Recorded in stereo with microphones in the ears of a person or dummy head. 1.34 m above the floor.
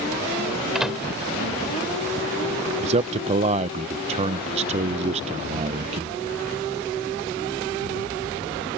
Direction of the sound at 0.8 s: 5° right (ahead or behind).